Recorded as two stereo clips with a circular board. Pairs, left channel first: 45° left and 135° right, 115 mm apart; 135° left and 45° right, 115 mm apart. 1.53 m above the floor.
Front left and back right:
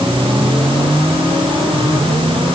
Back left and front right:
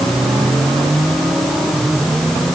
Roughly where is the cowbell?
I don't hear a cowbell.